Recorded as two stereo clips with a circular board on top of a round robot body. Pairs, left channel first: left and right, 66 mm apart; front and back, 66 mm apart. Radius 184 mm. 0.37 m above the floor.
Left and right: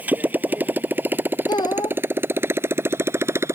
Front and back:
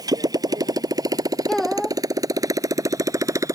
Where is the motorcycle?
155° right; by 3.5 s 140° right.